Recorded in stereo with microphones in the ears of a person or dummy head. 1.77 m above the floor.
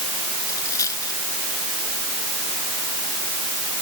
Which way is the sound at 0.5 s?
20° left (ahead or behind).